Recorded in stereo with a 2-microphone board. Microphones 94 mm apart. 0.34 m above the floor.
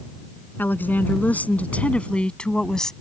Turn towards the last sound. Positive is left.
turn(degrees=5)  # may be behind; listen again after turning